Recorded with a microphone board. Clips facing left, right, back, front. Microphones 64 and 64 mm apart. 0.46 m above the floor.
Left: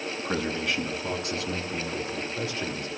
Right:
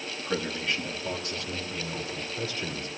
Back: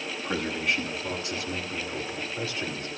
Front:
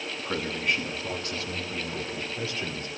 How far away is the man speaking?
About 3 m.